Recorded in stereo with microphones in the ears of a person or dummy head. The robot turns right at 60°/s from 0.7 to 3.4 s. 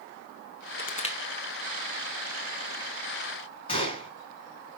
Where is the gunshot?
25° left (ahead or behind), 6 m.